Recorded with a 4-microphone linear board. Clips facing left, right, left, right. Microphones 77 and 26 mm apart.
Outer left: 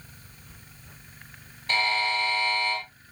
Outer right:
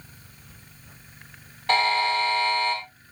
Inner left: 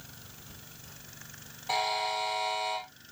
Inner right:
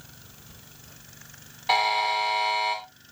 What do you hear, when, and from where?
1.7 s a buzzer: 75° right (ahead or behind), 4.5 m